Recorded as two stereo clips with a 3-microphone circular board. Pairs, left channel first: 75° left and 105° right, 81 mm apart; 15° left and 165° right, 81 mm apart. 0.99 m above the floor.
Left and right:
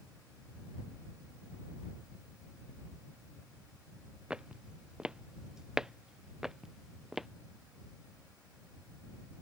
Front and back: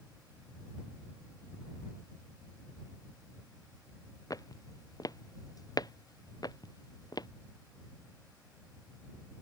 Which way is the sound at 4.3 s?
25° right.